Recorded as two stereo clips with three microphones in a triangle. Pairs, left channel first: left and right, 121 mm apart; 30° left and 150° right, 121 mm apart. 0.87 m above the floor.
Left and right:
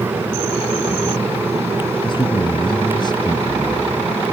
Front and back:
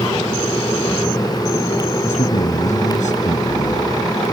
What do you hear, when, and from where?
2.0 s a man speaking: 40° left; by 4.0 s 35° left